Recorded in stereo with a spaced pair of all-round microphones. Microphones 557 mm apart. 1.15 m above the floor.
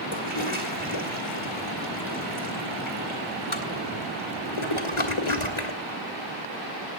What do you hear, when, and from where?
0.1 s a toilet flushing: 60° left (ahead or behind), 2.5 m